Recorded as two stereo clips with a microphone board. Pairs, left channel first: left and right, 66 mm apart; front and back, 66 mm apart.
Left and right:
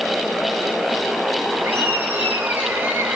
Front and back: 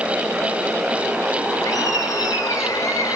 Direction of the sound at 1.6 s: 30° right.